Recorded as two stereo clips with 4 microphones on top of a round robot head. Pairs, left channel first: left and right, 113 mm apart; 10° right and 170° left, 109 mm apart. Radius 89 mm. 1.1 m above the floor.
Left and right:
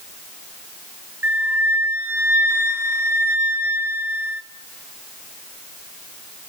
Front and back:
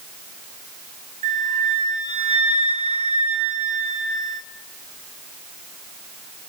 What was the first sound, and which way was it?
A flute, 160° right.